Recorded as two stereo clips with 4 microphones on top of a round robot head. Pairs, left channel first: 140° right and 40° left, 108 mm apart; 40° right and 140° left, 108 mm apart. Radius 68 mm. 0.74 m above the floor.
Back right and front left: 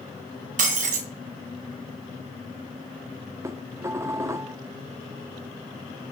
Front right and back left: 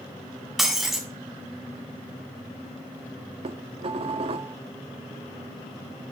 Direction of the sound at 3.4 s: 105° left.